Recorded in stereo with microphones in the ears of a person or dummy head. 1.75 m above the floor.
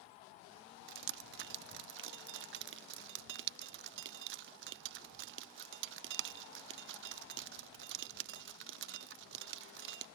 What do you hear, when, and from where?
0.9 s dripping: 60° right (ahead or behind)